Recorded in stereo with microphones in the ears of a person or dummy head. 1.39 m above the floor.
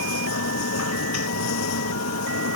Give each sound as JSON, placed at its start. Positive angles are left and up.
{"t": 0.0, "sound": "a machine running", "side_deg": 85}